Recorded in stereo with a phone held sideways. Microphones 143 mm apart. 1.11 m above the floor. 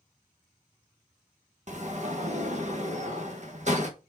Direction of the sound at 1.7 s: 55° right (ahead or behind).